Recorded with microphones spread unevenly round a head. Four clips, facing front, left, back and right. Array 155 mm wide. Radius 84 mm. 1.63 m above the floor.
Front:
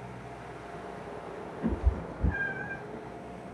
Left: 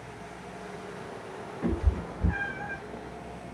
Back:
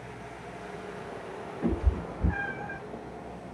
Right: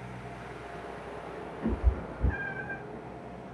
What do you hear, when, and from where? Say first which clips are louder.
1.6 s a cat meowing: left 3 dB, back 3 dB; 95° left, 1.4 m; by 2.8 s 10° left, 1.2 m